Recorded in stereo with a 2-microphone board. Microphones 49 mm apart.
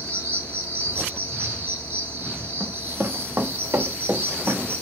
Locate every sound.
0.0 s an insect: 55° right (ahead or behind), 2 m
2.6 s running footsteps: 55° right (ahead or behind), 1.0 m; by 4.7 s 80° right, 3 m